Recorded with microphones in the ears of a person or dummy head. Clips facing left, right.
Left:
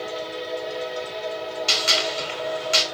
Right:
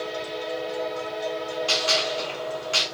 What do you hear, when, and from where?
1.7 s a gunshot: 20° left (ahead or behind), 1.0 m